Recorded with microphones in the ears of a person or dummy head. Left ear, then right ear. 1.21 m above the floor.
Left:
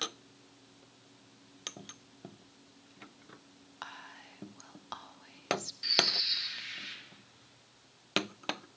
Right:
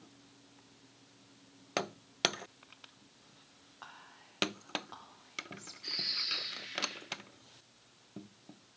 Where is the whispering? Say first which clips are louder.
Left 7 dB; 65° left (ahead or behind), 1.1 m.